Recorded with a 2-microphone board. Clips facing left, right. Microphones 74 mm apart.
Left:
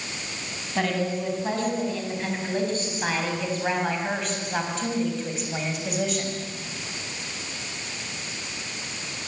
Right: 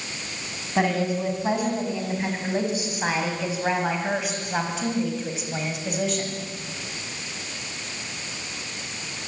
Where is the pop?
I don't hear a pop.